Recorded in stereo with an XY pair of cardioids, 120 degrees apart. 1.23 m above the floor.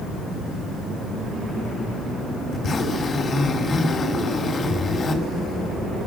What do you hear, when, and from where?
2.5 s a zipper: 40° left, 6 m